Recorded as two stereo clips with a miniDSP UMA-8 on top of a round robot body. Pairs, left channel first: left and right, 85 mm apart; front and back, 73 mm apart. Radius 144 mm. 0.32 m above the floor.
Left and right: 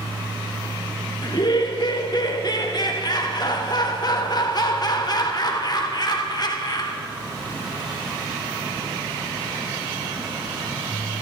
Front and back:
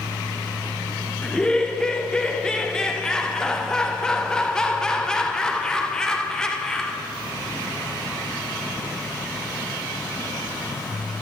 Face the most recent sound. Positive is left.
turn(degrees=80)